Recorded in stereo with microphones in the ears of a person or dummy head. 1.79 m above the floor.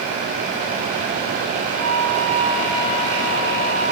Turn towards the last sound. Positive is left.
turn(degrees=40)  # may be behind; listen again after turning